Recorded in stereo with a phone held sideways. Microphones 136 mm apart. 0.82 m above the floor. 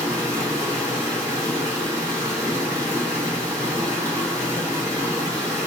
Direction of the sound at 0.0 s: 25° right (ahead or behind).